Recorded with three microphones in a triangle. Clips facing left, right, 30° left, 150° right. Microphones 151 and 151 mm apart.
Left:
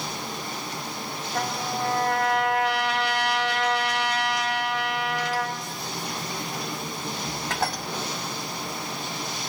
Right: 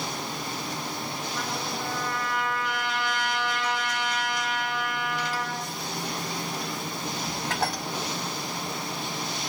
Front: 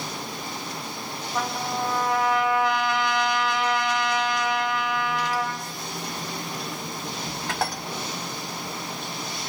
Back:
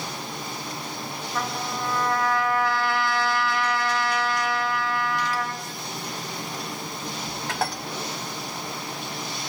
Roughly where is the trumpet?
Left.